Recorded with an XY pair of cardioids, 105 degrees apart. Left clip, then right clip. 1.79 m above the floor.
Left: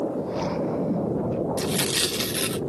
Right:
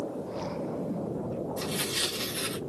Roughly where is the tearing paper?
Ahead left.